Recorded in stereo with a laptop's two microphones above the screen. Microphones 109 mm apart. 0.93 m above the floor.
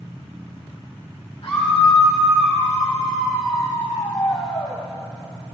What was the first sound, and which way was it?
A scream, 65° left (ahead or behind).